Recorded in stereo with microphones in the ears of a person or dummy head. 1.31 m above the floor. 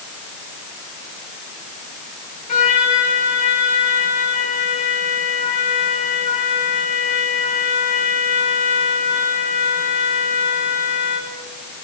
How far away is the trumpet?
About 2.5 m.